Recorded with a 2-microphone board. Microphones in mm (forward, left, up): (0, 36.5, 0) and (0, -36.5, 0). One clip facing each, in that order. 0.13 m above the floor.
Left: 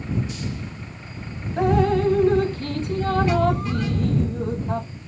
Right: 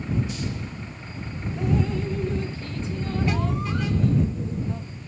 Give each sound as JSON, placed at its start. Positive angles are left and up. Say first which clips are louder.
{"t": 1.6, "sound": "dripping", "louder": "left 7 dB", "side_deg": 60}